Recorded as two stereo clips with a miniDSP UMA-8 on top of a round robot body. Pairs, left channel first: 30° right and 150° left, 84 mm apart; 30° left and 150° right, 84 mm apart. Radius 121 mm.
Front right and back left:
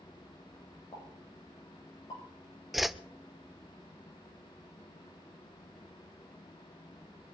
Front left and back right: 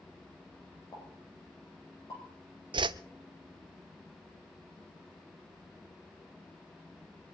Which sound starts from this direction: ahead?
A pop, at 0.9 s.